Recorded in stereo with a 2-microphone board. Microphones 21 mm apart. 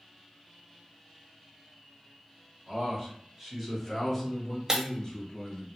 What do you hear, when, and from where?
2.7 s a man speaking: 30° right (ahead or behind), 1.5 m; by 5.7 s 45° left (ahead or behind), 1.4 m
4.7 s breaking glass: 30° right (ahead or behind), 0.6 m